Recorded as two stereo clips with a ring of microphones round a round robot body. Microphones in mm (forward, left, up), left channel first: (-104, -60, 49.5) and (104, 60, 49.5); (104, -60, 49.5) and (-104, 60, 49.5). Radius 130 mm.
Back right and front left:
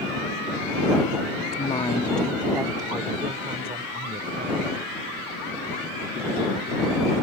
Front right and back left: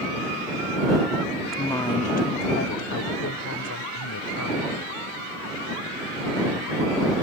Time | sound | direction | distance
1.5 | a woman speaking | 125° right | ?